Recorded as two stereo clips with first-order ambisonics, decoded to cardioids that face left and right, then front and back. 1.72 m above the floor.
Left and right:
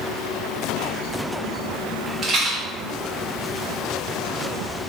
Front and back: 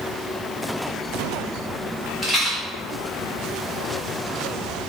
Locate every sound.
2.2 s a rattle: 75° right, 0.9 m